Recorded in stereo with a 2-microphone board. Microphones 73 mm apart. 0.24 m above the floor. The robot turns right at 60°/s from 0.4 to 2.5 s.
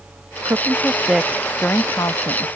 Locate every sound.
0.5 s a woman speaking: 45° right; by 2.5 s 75° left